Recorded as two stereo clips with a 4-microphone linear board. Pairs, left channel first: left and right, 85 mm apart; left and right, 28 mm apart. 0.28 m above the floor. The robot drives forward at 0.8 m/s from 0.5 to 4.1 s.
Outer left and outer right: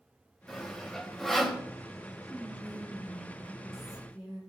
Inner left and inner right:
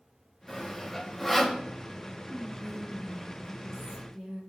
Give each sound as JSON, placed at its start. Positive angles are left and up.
{"t": 0.5, "sound": "sawing", "side_deg": 5, "distance_m": 2.0}
{"t": 2.3, "sound": "whispering", "side_deg": -5, "distance_m": 5.0}